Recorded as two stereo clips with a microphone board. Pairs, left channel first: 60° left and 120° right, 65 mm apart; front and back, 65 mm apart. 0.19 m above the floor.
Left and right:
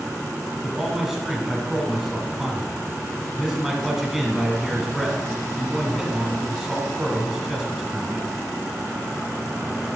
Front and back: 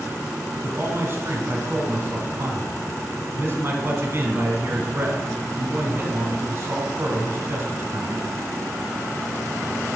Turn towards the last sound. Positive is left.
turn(degrees=160)